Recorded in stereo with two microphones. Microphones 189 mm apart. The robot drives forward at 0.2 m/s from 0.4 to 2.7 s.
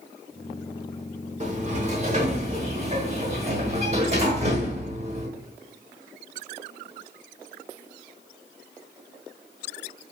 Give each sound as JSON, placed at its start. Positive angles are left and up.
{"t": 1.4, "sound": "a sliding door", "side_deg": -40, "distance_m": 1.1}